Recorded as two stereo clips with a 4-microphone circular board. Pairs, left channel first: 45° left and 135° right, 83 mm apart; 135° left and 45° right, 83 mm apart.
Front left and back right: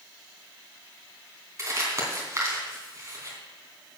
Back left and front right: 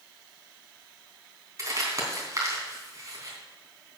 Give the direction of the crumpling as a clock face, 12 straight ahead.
3 o'clock.